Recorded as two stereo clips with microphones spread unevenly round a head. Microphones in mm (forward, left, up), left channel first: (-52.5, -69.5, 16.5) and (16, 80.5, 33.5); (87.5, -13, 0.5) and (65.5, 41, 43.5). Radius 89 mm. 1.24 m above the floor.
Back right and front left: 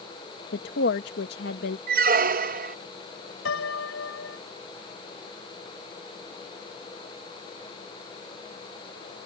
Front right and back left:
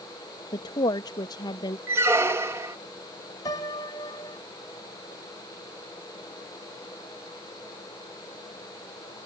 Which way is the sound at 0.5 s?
85° right.